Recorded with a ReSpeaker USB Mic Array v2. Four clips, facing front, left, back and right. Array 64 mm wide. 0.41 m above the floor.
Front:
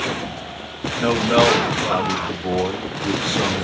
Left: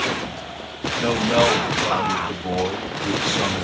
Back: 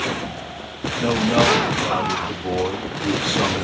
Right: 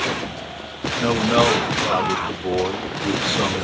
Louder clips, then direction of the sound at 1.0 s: Right 1 dB, front 2 dB; 15° right.